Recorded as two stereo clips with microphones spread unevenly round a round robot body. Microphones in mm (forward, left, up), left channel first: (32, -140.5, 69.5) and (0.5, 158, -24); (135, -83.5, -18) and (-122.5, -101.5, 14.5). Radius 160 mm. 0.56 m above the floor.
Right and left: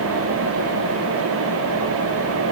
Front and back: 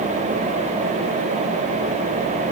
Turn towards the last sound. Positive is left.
No sound to turn to.